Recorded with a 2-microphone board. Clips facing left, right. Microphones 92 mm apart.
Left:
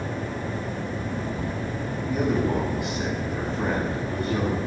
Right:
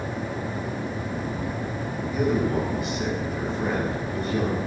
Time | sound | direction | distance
2.1 | a man speaking | 60° left (ahead or behind) | 9 m